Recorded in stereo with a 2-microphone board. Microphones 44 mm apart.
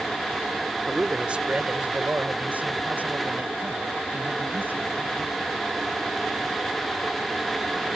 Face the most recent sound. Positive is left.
turn(degrees=-50)  # may be behind; listen again after turning